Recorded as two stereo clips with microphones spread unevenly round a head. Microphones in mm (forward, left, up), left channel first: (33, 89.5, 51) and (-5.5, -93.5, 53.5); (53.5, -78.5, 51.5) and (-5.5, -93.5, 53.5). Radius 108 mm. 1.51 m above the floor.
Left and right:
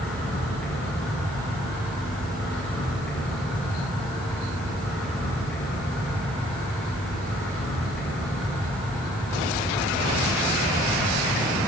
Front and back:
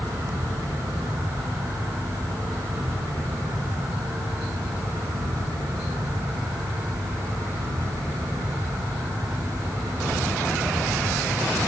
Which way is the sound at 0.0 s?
165° left.